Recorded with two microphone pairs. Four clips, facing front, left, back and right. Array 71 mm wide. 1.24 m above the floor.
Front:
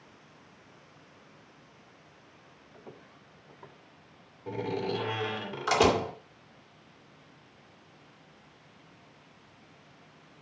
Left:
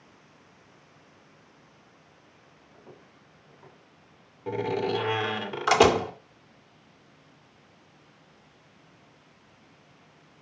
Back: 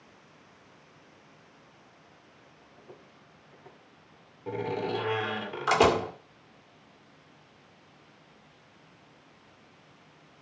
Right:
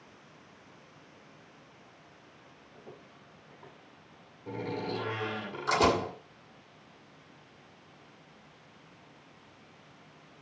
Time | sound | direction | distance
2.7 | footsteps | straight ahead | 7.5 m
4.5 | a door slam | 105° left | 2 m